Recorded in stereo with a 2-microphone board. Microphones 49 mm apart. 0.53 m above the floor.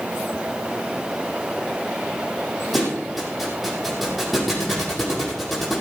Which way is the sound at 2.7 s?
5° right (ahead or behind).